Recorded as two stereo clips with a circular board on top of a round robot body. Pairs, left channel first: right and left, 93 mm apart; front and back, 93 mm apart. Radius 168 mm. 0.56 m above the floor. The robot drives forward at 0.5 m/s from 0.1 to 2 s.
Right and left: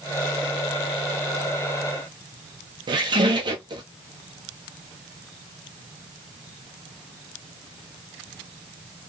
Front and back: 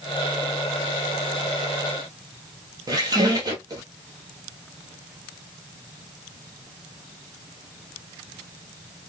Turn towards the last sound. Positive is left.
turn(degrees=130)